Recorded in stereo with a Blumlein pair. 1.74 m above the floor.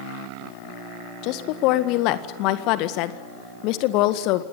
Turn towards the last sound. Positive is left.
turn(degrees=40)